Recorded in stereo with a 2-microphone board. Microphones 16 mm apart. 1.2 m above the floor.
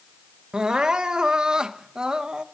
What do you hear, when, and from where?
0.5 s crying: 75° right (ahead or behind), 0.7 m